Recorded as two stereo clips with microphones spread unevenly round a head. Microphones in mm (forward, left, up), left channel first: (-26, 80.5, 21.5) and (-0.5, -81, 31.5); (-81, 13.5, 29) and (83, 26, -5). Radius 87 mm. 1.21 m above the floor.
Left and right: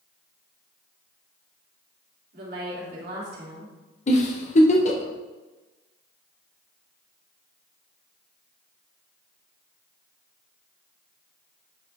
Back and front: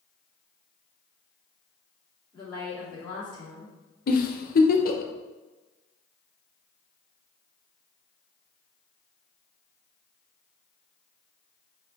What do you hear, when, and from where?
2.3 s a woman speaking: 110° right, 3.5 m
4.1 s a giggle: 145° left, 1.0 m